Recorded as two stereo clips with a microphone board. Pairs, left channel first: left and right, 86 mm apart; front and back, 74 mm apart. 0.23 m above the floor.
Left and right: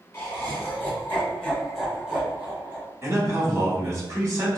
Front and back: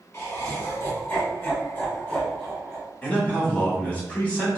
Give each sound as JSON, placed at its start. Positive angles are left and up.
{"t": 0.1, "sound": "laughter", "azimuth_deg": 40, "distance_m": 1.8}
{"t": 3.0, "sound": "a man speaking", "azimuth_deg": -60, "distance_m": 1.3}